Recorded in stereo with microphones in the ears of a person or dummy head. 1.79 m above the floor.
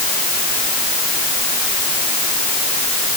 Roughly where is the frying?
No frying in this recording.